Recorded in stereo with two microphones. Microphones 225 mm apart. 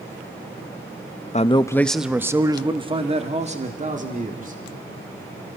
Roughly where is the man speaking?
Left.